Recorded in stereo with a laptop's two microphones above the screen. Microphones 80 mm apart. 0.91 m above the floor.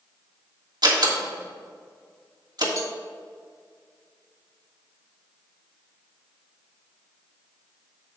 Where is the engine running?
I don't hear an engine running.